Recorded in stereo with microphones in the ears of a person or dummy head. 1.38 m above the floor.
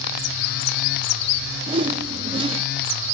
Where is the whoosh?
30° right (ahead or behind), 0.7 m.